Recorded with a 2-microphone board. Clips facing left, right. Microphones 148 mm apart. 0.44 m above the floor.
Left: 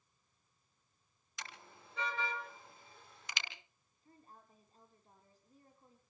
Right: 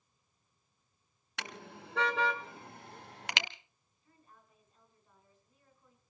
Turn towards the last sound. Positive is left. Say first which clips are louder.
# left 3 dB
turn(degrees=35)  # may be behind; listen again after turning